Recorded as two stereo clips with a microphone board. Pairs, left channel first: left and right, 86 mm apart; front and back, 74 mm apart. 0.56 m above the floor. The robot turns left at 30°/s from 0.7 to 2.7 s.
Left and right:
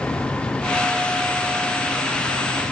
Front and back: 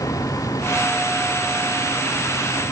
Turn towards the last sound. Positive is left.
No sound to turn to.